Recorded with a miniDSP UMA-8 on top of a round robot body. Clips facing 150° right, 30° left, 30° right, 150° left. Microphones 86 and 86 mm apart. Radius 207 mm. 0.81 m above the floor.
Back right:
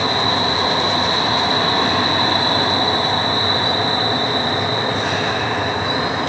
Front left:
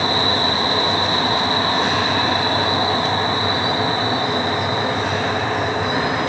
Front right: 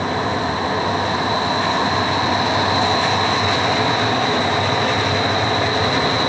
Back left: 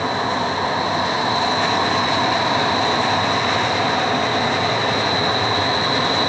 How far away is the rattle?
No rattle in this recording.